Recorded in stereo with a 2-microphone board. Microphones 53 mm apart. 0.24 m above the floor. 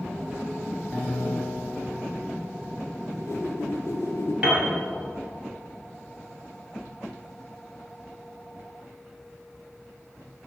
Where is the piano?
20° right (ahead or behind), 1.8 m.